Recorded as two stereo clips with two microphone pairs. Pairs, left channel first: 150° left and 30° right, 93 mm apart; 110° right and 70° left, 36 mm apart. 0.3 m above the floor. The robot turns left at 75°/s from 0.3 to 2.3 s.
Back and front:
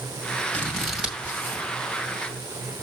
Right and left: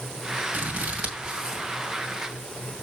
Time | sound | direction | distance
0.5 | scissors | 80° left | 2 m